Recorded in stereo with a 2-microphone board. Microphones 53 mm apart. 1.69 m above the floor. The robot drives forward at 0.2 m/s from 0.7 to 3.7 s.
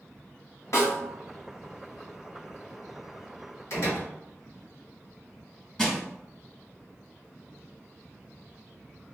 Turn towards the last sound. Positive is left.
turn(degrees=10)  # may be behind; listen again after turning